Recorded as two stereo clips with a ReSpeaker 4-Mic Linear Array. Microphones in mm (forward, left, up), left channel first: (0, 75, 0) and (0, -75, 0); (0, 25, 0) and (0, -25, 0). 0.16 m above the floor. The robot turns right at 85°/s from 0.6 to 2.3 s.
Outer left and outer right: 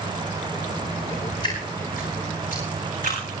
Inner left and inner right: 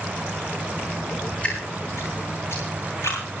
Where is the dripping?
30° left (ahead or behind), 7.5 m; by 3.2 s 75° left (ahead or behind), 7.5 m.